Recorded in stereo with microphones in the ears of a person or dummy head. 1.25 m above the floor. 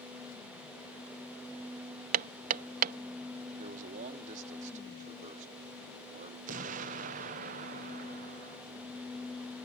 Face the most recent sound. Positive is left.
turn(degrees=-40)  # may be behind; listen again after turning